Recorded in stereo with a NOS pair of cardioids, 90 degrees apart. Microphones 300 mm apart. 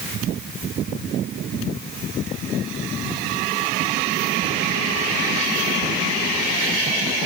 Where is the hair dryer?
No hair dryer in this recording.